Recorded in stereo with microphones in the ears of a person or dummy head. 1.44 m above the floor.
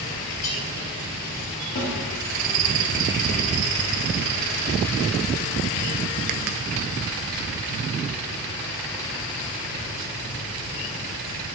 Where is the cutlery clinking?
40° left (ahead or behind), 2 m.